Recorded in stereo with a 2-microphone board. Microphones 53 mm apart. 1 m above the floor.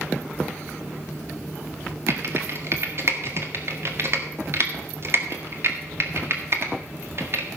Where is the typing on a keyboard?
50° right (ahead or behind), 1.7 m.